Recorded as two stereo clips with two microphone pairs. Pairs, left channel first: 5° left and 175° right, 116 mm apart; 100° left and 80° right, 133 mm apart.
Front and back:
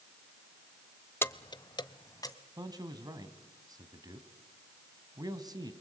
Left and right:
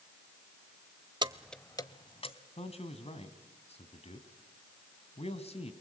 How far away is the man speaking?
About 2 m.